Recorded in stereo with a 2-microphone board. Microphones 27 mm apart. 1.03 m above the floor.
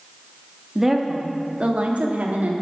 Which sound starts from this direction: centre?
A woman speaking, at 0.8 s.